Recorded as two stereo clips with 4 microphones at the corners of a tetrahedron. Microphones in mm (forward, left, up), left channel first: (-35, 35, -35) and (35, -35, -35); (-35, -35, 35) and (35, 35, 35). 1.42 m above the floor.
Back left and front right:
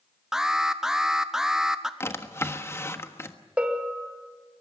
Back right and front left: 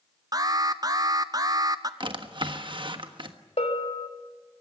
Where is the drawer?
75° left, 1.3 m.